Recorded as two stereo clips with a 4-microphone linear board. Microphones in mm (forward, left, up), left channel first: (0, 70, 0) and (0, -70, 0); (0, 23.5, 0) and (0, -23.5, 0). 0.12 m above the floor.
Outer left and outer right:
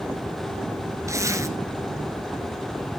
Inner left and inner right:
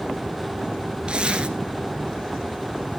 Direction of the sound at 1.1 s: 20° right (ahead or behind).